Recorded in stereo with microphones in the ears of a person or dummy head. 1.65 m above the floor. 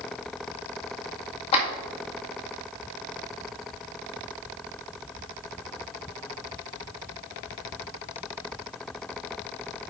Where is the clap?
35° left (ahead or behind), 1.8 m.